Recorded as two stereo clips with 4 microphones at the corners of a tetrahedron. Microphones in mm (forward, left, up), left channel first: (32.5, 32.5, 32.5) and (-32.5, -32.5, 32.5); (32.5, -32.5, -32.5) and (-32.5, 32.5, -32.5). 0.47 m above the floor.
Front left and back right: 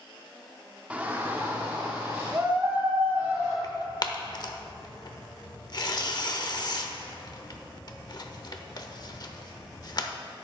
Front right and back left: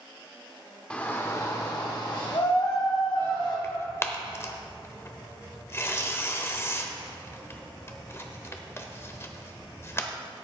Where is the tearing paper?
10° left, 0.8 m.